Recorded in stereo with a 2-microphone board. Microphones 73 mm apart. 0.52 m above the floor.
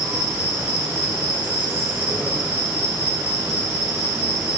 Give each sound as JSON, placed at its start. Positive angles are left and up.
{"t": 0.0, "sound": "an insect", "side_deg": -20, "distance_m": 3.5}